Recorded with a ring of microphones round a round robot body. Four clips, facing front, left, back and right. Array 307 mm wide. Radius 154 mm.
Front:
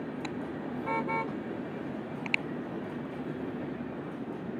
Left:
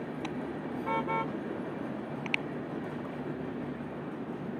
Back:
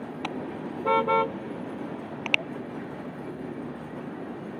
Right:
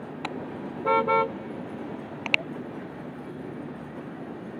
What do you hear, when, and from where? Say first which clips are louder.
0.2 s a car horn: right 5 dB, back 3 dB; 130° right; by 2.4 s 125° right